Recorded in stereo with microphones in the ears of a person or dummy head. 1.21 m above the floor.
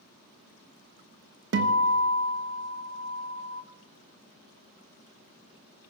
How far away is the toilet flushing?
I don't hear a toilet flushing.